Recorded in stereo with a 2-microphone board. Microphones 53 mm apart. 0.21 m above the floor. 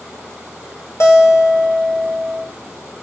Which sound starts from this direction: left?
A guitar, at 1.0 s.